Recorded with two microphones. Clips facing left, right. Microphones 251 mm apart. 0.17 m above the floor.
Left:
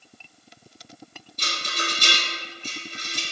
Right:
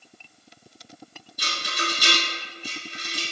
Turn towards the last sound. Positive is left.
turn(degrees=-10)  # may be behind; listen again after turning